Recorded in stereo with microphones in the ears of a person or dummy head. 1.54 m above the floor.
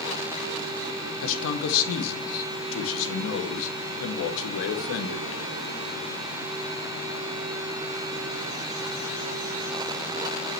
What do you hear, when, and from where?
1.2 s a man speaking: 70° left (ahead or behind), 0.9 m